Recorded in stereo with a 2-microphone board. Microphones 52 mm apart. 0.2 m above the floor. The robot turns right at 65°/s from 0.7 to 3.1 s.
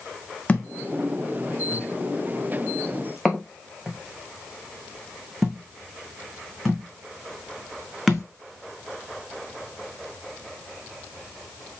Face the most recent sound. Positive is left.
turn(degrees=0)  # may be behind; listen again after turning